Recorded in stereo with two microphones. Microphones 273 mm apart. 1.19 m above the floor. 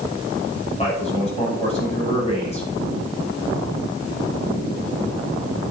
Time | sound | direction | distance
0.8 | a man speaking | 25° left (ahead or behind) | 8 m